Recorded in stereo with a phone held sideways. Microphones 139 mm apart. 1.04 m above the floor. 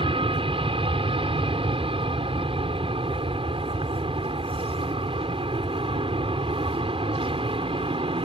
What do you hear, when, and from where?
0.0 s an aircraft: 40° right (ahead or behind)